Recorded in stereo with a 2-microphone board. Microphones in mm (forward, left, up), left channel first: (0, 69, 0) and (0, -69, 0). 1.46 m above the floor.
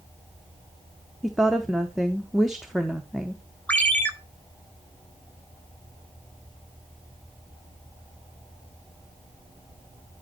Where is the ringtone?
10° left (ahead or behind), 1.0 m.